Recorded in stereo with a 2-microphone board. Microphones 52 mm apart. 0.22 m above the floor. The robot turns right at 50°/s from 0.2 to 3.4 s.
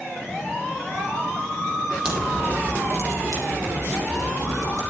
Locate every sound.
2.0 s a crack: 165° right, 8.5 m; by 4.8 s 100° right, 8.5 m